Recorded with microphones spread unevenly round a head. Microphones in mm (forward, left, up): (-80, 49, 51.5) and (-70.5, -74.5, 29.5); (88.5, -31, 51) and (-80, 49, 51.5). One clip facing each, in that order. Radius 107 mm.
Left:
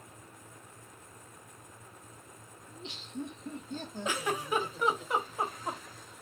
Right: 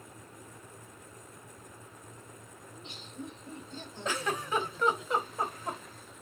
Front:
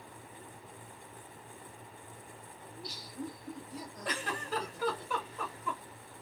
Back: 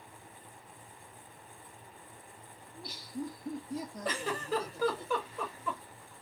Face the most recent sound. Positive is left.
turn(degrees=175)